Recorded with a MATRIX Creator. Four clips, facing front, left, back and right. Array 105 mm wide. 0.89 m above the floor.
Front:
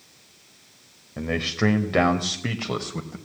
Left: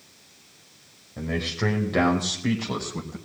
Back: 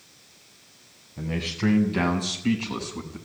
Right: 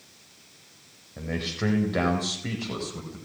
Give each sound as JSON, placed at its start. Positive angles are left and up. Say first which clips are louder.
{"t": 1.2, "sound": "a man speaking", "louder": "left 3 dB, front 4 dB", "azimuth_deg": 0, "distance_m": 4.5}